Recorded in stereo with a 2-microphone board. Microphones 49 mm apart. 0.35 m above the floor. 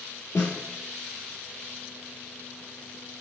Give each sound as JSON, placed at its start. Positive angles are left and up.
{"t": 0.3, "sound": "a snare drum", "side_deg": 65, "distance_m": 1.3}